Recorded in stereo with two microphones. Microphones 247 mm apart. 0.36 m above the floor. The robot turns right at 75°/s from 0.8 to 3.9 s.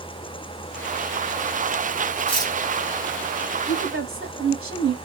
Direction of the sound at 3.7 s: 60° right (ahead or behind).